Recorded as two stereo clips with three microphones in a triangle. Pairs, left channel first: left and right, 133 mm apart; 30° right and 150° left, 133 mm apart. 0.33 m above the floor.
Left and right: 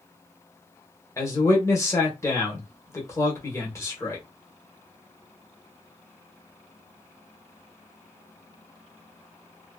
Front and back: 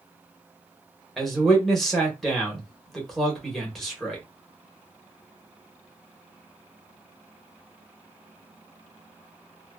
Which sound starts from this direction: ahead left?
A man speaking, at 1.2 s.